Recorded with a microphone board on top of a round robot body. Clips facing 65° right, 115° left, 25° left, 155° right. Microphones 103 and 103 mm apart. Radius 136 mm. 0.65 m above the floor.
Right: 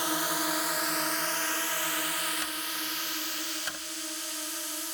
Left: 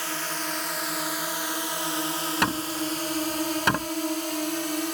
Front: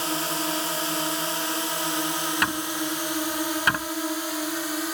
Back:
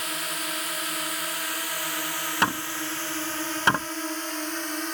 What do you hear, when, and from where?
0.0 s a drone: 10° right; by 5.0 s 105° left
2.4 s hammering: 140° left